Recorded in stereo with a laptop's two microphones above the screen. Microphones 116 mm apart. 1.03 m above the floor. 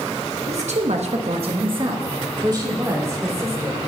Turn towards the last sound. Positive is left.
turn(degrees=-25)  # may be behind; listen again after turning